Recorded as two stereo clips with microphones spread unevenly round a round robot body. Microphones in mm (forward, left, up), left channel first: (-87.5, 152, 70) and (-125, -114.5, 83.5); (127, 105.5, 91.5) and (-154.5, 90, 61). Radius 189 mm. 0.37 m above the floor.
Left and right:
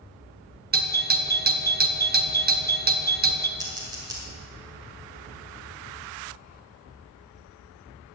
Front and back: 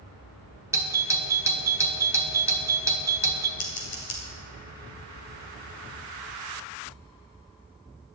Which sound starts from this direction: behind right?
A doorbell, at 0.7 s.